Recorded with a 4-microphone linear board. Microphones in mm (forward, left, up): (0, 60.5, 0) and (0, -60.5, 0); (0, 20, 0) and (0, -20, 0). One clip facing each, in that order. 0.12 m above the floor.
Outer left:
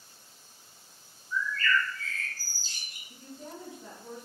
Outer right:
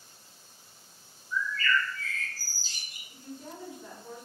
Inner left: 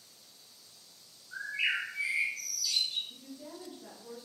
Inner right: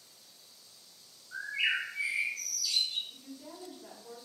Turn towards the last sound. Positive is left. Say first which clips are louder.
# outer right 1 dB, inner left 1 dB
turn(degrees=30)  # may be behind; listen again after turning